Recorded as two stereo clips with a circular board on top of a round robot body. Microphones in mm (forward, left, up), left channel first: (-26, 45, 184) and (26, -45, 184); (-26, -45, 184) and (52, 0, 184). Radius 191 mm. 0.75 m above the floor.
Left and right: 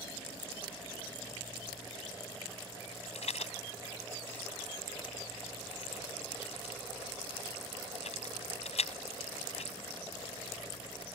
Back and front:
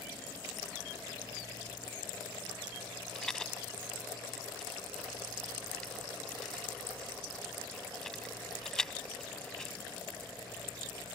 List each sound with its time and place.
3.1 s a rattle: 125° left